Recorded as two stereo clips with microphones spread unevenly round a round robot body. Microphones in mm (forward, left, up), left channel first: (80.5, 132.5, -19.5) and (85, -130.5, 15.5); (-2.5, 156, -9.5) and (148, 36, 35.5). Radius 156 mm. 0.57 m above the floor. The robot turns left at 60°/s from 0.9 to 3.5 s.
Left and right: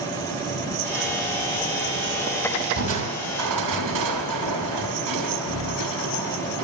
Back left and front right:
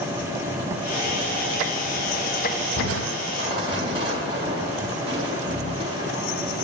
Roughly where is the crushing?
Right.